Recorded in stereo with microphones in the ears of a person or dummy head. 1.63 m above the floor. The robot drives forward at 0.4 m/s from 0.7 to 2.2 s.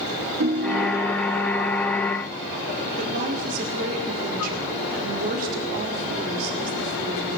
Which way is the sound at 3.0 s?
50° right (ahead or behind).